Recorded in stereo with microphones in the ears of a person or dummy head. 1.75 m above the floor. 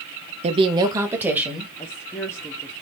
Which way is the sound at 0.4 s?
35° right (ahead or behind).